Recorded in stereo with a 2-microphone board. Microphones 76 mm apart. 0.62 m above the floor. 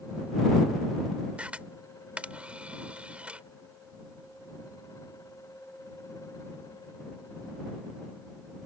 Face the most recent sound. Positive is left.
turn(degrees=-15)  # may be behind; listen again after turning